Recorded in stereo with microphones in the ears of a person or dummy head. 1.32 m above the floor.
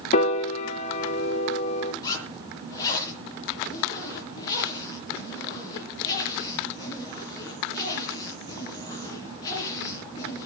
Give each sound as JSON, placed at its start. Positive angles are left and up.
{"t": 0.1, "sound": "a piano", "side_deg": 35, "distance_m": 1.7}
{"t": 2.0, "sound": "a zipper", "side_deg": 20, "distance_m": 8.0}